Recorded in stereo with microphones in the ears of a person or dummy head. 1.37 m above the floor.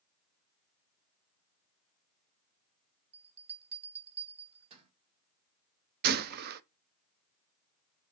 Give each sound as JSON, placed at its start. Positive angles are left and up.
{"t": 3.1, "sound": "a bell", "side_deg": -30, "distance_m": 1.6}
{"t": 6.0, "sound": "a gunshot", "side_deg": -50, "distance_m": 0.6}